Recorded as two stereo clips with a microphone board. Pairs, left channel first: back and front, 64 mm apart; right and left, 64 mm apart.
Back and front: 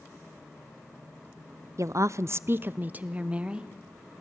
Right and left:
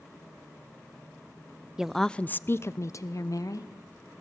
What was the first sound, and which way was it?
A woman speaking, 15° left.